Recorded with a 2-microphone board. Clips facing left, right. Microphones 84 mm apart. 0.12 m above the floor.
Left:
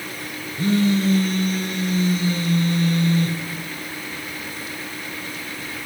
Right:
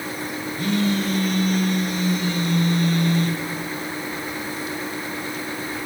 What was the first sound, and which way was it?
A phone buzzing, 30° left (ahead or behind).